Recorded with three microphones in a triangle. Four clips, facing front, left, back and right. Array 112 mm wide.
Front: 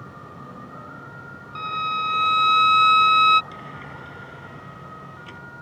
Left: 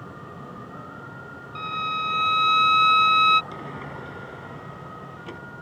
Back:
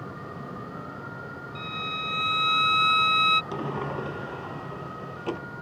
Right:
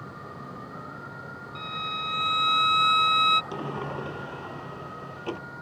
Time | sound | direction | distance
1.6 | a violin | 25° left | ?
3.5 | a sliding door | 155° right | ?